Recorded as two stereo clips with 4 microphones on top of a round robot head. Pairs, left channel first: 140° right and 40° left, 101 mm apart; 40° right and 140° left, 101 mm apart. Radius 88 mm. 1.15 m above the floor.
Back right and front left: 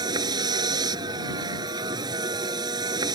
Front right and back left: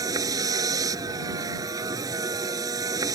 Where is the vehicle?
85° left.